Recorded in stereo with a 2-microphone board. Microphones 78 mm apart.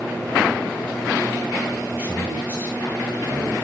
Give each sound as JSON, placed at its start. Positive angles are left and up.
{"t": 1.7, "sound": "a man speaking", "side_deg": -20, "distance_m": 2.5}